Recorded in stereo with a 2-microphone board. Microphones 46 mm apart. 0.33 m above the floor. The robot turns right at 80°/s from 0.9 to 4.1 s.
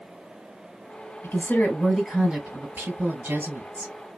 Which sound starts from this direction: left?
A woman speaking, at 1.2 s.